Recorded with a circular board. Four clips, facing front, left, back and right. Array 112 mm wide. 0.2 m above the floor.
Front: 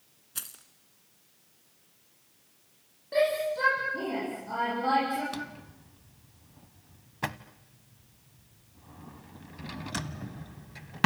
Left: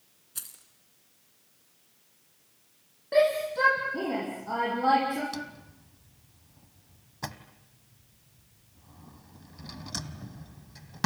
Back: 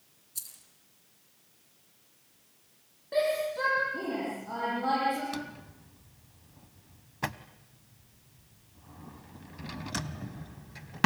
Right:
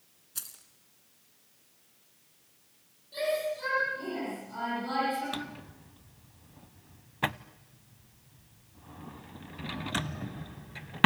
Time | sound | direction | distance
0.3 | keys jangling | 5° right | 1.7 m
3.1 | a shout | 95° left | 9 m
5.3 | a drawer | 85° right | 0.6 m